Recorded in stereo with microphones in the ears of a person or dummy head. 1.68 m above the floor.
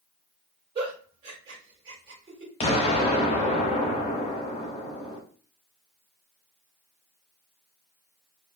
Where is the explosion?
35° left (ahead or behind), 0.7 m.